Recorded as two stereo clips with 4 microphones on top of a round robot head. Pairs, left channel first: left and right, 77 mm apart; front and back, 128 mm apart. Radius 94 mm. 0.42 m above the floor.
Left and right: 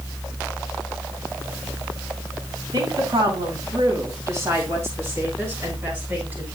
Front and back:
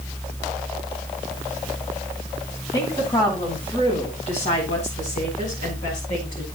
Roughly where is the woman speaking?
Ahead right.